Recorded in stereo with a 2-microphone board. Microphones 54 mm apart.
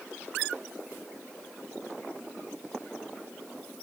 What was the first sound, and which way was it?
Only background noise.